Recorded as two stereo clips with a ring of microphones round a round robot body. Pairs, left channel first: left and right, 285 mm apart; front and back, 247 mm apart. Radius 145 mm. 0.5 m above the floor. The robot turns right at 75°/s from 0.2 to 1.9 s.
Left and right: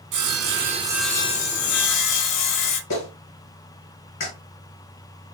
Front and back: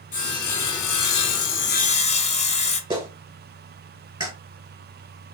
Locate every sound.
0.1 s sawing: 65° right, 0.8 m; by 2.8 s 65° left, 0.8 m
2.9 s a clap: 105° left, 2.5 m